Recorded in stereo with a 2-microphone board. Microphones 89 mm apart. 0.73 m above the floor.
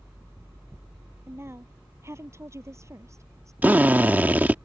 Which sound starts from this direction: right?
A woman speaking, at 1.3 s.